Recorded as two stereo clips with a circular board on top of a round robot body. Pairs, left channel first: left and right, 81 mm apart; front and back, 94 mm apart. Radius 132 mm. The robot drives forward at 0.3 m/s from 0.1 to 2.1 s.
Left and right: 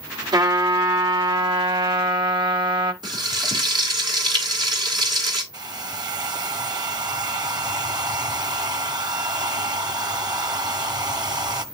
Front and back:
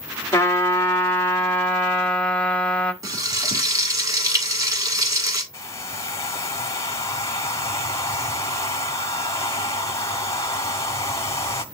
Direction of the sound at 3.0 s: 130° right.